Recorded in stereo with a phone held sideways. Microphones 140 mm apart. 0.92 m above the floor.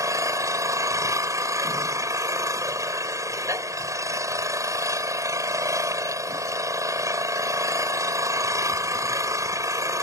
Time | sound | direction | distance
0.0 | an engine running | 25° right (ahead or behind) | ?